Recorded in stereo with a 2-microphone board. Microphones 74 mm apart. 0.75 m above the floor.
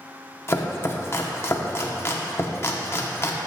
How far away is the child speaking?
I don't hear a child speaking.